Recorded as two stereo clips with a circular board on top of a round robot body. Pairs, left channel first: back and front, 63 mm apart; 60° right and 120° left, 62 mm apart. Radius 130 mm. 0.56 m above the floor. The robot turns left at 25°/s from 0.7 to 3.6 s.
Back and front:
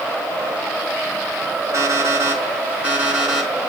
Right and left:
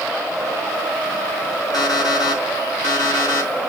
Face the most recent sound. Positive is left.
turn(degrees=-85)